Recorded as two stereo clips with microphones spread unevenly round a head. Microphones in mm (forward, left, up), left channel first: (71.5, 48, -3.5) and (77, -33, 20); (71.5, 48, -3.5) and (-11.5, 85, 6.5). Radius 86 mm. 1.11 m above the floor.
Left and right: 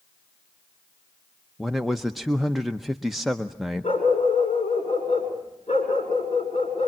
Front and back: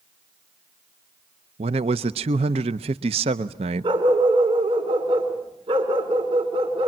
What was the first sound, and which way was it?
A man speaking, straight behind.